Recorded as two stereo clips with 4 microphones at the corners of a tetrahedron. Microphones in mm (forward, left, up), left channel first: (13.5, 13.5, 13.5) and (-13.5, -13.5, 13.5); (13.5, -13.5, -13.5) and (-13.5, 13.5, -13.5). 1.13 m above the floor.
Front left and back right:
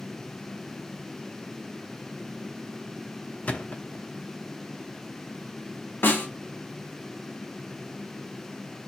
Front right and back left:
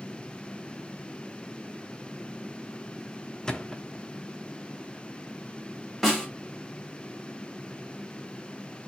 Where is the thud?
20° left, 0.8 m.